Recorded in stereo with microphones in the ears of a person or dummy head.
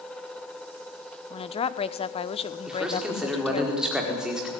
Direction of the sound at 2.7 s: 5° right (ahead or behind).